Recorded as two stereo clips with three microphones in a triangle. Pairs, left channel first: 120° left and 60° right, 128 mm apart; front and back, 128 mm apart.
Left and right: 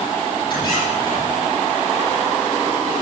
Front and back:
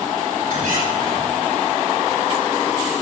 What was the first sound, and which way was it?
A squeak, 175° left.